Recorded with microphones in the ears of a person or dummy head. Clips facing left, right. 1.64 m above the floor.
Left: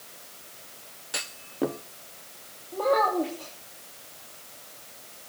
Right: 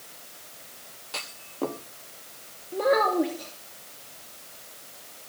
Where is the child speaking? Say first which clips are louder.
Right 2 dB; 15° right (ahead or behind), 2.5 m.